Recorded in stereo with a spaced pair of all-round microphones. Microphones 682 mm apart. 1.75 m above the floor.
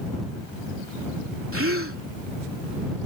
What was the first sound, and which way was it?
A gasp, 20° right (ahead or behind).